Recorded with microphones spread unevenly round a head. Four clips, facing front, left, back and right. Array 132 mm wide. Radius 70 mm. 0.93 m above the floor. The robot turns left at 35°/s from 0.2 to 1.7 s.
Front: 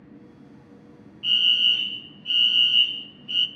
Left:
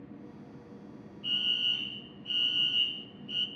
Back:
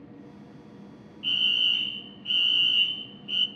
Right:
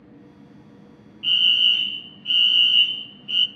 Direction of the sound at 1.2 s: 85° right.